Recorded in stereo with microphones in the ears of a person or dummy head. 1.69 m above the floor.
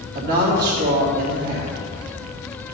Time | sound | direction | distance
0.1 | a woman speaking | 60° right (ahead or behind) | 3 m